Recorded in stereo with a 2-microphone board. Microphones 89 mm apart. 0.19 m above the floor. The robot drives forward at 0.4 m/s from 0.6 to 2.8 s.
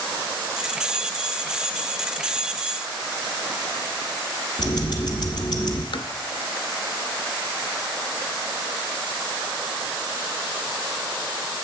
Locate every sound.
4.6 s ticking: 55° left (ahead or behind), 1.4 m
5.9 s tapping: 75° left (ahead or behind), 0.7 m